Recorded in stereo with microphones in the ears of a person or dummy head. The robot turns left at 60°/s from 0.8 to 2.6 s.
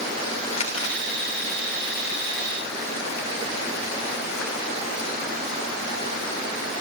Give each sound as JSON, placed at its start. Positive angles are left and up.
{"t": 0.5, "sound": "crumpling", "side_deg": 45, "distance_m": 2.5}